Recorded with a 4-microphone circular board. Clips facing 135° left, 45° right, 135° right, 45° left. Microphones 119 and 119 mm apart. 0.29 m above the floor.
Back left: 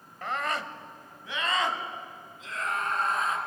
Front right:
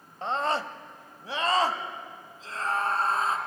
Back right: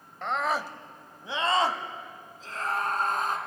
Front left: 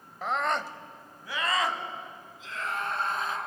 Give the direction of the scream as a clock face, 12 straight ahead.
1 o'clock.